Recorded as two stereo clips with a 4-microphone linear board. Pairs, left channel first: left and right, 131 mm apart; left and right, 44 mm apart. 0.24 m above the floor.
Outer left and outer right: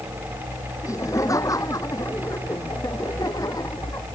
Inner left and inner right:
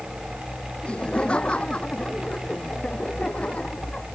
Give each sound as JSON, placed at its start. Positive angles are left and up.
{"t": 0.8, "sound": "laughter", "side_deg": 25}